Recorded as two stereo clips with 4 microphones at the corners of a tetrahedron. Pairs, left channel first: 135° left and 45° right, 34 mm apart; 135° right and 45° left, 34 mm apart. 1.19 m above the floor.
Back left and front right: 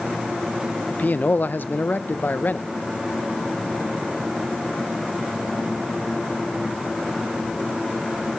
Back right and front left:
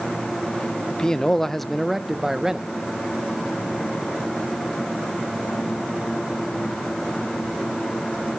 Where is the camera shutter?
No camera shutter in this recording.